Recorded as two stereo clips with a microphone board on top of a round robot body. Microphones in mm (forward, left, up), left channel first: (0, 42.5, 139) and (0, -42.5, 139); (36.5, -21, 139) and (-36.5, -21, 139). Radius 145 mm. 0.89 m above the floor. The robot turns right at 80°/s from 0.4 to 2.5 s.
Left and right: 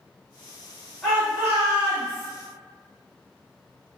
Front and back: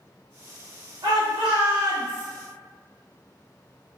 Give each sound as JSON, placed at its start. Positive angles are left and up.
{"t": 1.0, "sound": "a shout", "azimuth_deg": 170, "distance_m": 1.8}